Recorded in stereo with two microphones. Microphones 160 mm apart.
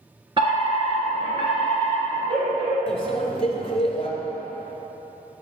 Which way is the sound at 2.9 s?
35° left (ahead or behind).